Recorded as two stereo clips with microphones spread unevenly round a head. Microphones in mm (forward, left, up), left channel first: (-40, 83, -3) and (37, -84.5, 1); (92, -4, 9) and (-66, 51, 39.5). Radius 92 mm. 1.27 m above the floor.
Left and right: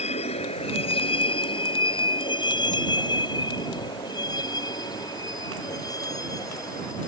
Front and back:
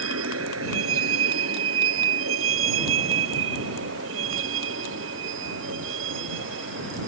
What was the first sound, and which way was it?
A vehicle, 175° left.